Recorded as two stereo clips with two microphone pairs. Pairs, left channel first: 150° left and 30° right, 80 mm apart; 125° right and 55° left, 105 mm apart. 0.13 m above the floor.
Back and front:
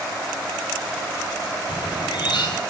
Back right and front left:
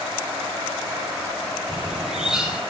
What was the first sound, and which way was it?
A bird, 140° left.